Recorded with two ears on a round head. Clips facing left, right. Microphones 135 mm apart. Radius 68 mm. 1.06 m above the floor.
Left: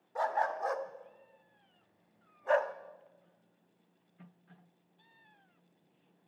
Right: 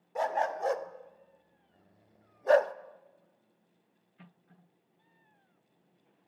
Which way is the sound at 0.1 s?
25° right (ahead or behind).